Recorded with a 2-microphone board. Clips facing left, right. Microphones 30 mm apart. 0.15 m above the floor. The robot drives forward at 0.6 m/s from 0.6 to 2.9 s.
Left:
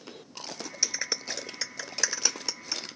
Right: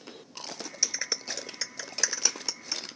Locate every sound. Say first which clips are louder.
0.8 s a clap: left 1 dB; 5° left (ahead or behind)